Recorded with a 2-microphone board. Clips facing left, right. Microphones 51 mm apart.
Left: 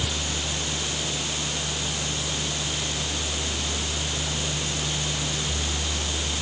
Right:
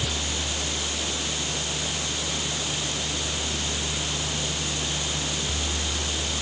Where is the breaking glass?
I don't hear breaking glass.